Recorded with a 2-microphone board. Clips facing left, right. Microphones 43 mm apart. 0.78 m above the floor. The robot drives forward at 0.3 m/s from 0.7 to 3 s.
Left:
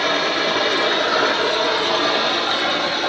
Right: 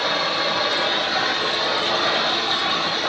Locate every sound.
0.0 s running water: 65° left (ahead or behind), 1.4 m; by 3.1 s 50° left (ahead or behind), 1.8 m